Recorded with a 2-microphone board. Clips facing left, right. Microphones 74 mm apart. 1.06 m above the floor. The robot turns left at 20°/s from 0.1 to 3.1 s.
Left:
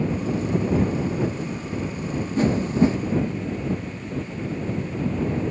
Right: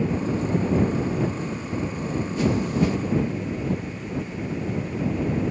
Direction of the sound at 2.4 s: 40° left (ahead or behind).